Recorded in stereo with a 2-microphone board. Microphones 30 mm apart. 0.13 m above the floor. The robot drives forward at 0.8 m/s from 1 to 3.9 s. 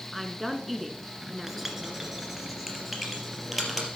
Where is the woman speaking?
Centre (ahead or behind), 1.1 m.